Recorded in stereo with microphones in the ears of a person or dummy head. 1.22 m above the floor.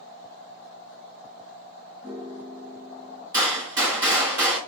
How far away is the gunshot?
About 1.7 m.